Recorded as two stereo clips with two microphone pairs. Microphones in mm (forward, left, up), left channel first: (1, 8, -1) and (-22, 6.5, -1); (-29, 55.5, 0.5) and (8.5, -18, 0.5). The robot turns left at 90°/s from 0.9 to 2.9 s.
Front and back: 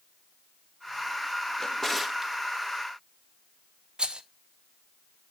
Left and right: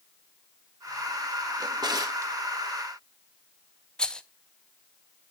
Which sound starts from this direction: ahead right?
A drawer, at 1.6 s.